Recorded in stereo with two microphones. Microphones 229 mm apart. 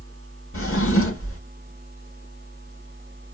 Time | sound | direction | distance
0.5 | a drawer | 70° left (ahead or behind) | 1.0 m